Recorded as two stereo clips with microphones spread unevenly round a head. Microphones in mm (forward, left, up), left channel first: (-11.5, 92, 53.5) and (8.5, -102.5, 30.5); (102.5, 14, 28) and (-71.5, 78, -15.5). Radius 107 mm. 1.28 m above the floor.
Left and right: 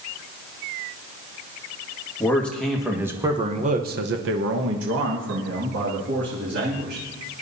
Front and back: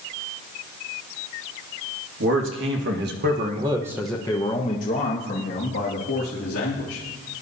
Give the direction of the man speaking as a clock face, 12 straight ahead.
6 o'clock.